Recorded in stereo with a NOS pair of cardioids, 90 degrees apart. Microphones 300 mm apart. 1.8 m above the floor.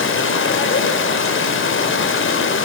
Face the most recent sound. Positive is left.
turn(degrees=40)